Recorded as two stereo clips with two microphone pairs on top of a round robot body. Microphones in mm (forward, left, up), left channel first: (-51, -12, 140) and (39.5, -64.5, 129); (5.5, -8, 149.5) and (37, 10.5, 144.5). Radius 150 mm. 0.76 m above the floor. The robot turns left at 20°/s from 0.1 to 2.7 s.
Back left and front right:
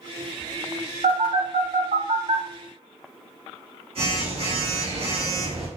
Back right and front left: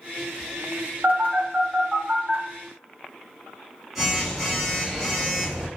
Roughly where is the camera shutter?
I don't hear a camera shutter.